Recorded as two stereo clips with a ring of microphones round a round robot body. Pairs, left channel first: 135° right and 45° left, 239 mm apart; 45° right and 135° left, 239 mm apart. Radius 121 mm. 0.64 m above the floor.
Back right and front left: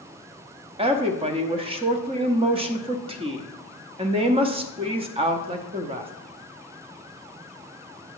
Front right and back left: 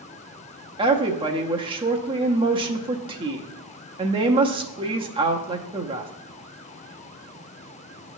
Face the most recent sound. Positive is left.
turn(degrees=90)